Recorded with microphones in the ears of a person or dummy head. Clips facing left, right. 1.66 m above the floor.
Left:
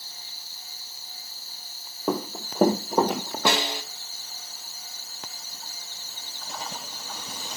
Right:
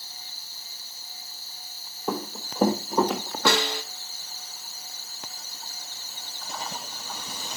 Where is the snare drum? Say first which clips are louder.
Right 1 dB; 25° left (ahead or behind), 1.4 m.